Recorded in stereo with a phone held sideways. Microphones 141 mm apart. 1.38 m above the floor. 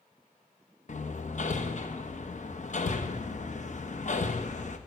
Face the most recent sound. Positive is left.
turn(degrees=55)  # may be behind; listen again after turning